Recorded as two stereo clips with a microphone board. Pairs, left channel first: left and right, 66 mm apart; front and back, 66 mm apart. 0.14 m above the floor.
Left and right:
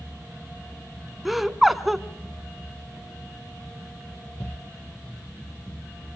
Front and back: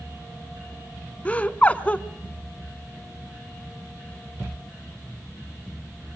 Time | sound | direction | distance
1.2 | laughter | 5° right | 1.1 m